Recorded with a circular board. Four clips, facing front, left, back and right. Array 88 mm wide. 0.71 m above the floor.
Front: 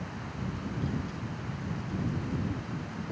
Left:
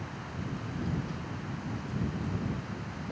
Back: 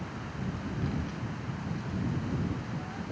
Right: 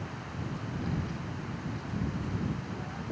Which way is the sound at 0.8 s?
145° right.